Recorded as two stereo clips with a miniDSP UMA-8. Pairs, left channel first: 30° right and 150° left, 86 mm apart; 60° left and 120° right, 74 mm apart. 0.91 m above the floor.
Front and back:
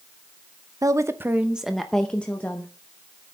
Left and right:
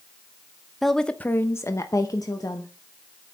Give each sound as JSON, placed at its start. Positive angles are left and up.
{"t": 0.8, "sound": "a woman speaking", "azimuth_deg": 145, "distance_m": 0.8}